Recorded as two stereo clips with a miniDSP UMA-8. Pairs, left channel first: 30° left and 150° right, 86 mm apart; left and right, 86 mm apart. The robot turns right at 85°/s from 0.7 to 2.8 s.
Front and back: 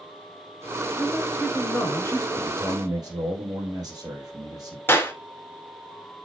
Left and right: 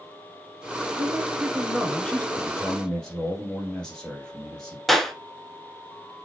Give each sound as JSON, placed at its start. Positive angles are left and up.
{"t": 1.0, "sound": "a woman speaking", "azimuth_deg": -75, "distance_m": 1.3}
{"t": 2.4, "sound": "a man speaking", "azimuth_deg": 130, "distance_m": 3.0}
{"t": 4.9, "sound": "a clap", "azimuth_deg": 0, "distance_m": 1.1}